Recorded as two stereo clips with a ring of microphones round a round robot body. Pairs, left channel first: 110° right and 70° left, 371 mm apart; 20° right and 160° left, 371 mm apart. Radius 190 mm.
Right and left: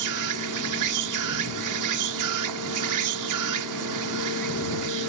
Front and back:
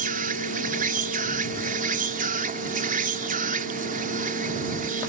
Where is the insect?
90° left.